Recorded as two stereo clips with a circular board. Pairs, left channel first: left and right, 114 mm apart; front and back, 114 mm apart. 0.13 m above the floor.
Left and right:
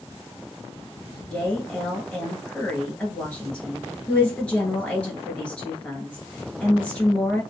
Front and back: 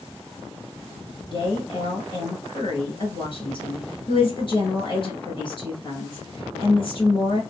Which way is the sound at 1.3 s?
15° left.